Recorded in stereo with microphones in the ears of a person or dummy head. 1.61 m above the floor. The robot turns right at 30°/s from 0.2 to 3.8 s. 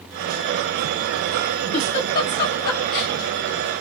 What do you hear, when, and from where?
1.7 s a giggle: 30° left (ahead or behind), 1.4 m; by 3.1 s 60° left (ahead or behind), 1.4 m